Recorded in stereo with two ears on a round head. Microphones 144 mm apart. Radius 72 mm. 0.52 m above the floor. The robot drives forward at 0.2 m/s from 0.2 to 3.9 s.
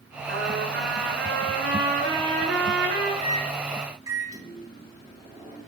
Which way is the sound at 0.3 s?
80° right.